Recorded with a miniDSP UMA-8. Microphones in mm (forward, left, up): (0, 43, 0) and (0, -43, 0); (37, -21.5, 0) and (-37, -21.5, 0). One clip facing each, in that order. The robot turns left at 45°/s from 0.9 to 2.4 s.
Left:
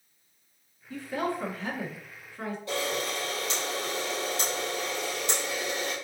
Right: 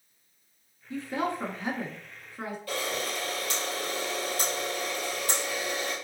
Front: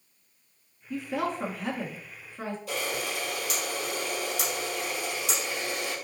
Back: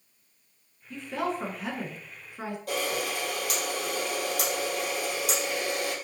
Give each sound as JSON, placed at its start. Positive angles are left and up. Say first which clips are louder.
{"t": 0.9, "sound": "a woman speaking", "louder": "even, front 1 dB", "azimuth_deg": -65, "distance_m": 1.0}
{"t": 2.7, "sound": "a camera shutter", "louder": "left 2 dB, back 4 dB", "azimuth_deg": 155, "distance_m": 2.5}